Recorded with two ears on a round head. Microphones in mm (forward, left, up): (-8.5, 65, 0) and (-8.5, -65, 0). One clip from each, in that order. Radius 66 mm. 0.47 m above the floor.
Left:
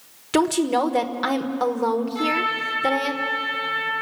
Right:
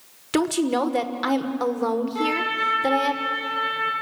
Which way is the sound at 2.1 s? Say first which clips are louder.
Left 1 dB; 15° right (ahead or behind).